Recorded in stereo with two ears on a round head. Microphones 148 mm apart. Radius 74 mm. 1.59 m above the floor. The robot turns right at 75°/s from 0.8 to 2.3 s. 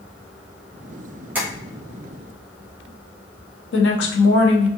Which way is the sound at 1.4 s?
10° right (ahead or behind).